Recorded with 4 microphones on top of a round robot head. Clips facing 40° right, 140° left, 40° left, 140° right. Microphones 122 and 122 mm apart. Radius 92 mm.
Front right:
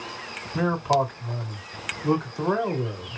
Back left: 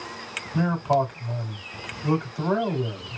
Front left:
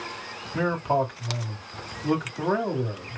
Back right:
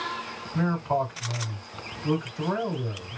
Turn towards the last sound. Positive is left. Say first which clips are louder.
# even, front left 2 dB
turn(degrees=65)